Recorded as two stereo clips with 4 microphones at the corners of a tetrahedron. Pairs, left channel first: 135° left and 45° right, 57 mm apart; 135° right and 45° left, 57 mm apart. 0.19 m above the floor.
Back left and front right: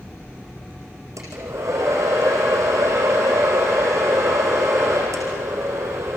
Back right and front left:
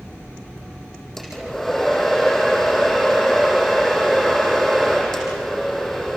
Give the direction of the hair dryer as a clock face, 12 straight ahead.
2 o'clock.